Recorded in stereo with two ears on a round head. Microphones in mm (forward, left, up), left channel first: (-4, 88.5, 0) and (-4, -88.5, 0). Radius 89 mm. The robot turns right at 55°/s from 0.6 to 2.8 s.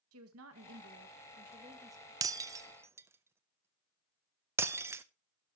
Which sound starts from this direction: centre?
Breaking glass, at 2.2 s.